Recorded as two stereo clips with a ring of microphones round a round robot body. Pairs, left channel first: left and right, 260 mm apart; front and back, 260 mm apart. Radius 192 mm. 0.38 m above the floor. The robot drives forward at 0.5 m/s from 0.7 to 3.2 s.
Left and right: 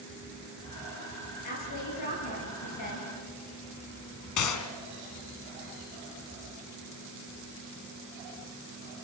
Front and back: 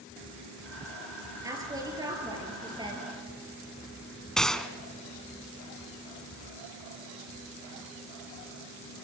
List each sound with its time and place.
1.4 s a woman speaking: 105° left, 7.5 m; by 3.1 s 110° left, 8 m
4.4 s a gunshot: 90° left, 1.5 m